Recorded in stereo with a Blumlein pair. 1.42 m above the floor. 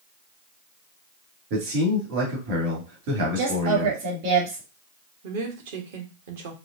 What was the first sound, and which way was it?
A man speaking, 50° right.